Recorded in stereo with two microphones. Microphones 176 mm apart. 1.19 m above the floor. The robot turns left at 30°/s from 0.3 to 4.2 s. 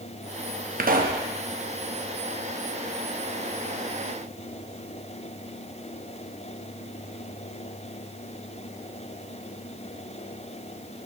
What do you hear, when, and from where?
0.8 s a pop: 50° right (ahead or behind), 0.7 m; by 1.2 s 55° right (ahead or behind), 0.7 m